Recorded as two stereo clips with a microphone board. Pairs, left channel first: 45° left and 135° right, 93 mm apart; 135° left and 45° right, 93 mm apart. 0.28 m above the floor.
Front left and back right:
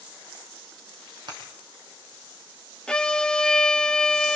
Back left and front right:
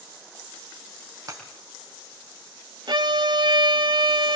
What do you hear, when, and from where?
1.3 s breaking glass: 100° right, 5.5 m
2.9 s a violin: 35° right, 0.8 m